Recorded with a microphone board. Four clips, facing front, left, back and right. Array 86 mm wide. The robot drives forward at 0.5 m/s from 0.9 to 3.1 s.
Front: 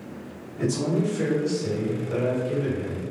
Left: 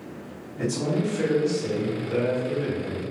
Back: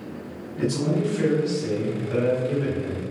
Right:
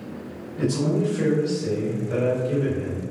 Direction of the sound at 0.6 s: 150° right.